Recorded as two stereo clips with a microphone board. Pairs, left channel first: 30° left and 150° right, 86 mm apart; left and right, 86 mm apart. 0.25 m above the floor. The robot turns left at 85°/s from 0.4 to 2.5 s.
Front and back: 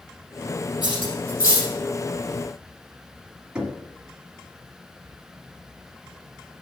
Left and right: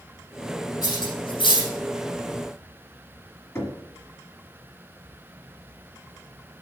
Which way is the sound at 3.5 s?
135° left.